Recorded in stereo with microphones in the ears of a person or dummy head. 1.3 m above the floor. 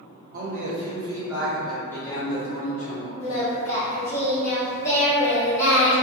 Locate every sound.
0.3 s a man speaking: 50° right (ahead or behind), 0.9 m; by 3.1 s 40° left (ahead or behind), 1.2 m
3.2 s singing: 45° left (ahead or behind), 1.0 m